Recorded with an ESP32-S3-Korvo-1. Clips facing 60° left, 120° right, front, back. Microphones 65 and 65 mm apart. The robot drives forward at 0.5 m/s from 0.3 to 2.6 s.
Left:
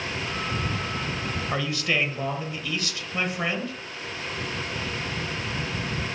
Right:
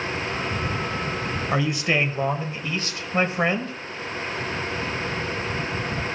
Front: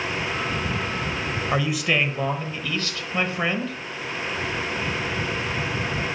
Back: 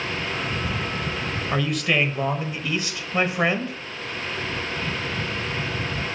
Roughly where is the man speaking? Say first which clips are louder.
Right 4 dB, even; right.